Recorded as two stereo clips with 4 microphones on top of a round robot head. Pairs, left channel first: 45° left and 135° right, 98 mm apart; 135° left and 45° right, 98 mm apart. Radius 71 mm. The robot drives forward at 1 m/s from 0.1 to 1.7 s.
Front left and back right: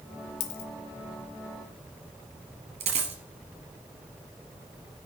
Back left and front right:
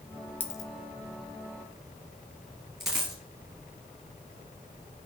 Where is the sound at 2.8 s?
130° right, 2.0 m.